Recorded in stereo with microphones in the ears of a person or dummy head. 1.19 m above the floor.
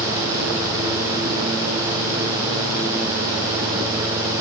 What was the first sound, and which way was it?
Only background noise.